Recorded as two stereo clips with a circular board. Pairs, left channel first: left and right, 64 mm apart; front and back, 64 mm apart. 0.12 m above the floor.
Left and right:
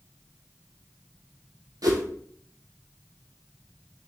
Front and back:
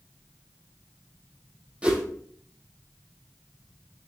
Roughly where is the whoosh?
Right.